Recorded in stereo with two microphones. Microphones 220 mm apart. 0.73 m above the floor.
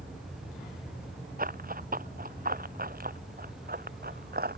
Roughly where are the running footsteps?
Right.